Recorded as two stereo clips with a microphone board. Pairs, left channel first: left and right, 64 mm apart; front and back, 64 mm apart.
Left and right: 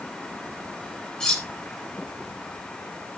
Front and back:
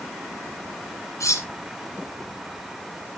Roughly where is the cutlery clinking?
Ahead.